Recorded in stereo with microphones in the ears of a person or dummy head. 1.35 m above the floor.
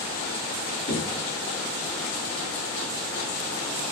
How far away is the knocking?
About 9.5 m.